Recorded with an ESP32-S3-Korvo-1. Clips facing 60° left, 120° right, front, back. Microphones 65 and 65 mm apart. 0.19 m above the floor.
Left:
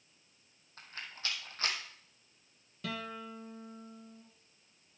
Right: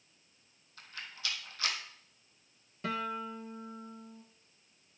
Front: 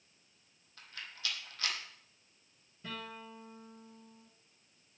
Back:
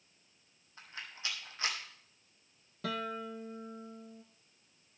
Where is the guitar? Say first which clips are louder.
Right 5 dB, back 8 dB; straight behind, 1.2 m.